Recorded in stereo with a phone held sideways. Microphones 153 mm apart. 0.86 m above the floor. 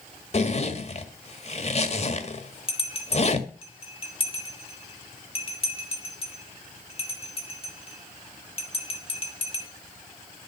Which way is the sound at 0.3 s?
45° left (ahead or behind).